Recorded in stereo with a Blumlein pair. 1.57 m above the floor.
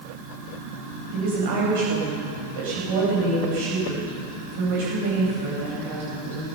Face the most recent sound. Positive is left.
turn(degrees=-55)